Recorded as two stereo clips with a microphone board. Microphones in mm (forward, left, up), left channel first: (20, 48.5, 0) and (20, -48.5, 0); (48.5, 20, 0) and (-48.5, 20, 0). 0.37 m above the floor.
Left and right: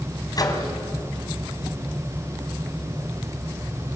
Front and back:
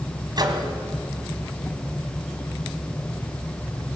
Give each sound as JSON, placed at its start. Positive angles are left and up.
{"t": 0.4, "sound": "a microwave", "azimuth_deg": 135, "distance_m": 2.5}